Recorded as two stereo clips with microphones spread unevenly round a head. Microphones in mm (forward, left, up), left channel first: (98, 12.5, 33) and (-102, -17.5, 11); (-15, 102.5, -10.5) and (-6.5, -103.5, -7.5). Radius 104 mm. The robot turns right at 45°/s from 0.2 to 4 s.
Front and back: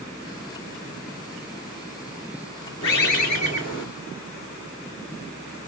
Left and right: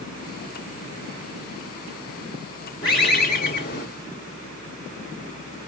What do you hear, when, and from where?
2.8 s a bird: 25° left, 1.9 m; by 3.9 s 70° left, 1.9 m